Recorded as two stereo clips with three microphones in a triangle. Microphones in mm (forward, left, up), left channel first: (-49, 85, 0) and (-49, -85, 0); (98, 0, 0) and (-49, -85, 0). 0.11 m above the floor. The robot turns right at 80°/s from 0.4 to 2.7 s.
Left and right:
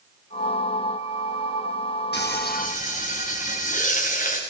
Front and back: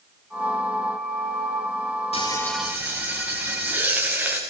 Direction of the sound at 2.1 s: 85° left.